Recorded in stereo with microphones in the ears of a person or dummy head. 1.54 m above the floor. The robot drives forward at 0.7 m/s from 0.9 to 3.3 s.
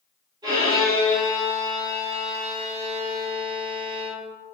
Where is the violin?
25° right (ahead or behind), 1.9 m; by 4.3 s 75° right (ahead or behind), 0.8 m.